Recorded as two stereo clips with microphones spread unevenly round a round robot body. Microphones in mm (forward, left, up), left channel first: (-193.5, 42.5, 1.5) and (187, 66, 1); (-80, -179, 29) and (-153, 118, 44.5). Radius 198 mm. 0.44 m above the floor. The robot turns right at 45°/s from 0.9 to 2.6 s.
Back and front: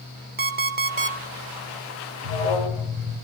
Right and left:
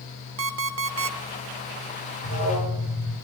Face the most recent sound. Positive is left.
turn(degrees=75)